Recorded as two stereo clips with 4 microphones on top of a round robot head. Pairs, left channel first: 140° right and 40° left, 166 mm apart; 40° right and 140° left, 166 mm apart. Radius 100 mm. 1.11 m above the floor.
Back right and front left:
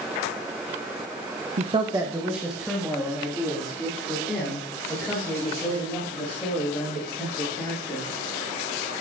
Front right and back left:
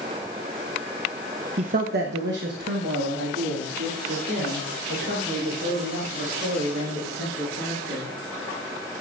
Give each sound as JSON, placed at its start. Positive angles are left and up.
{"t": 1.6, "sound": "a man speaking", "azimuth_deg": 85, "distance_m": 0.6}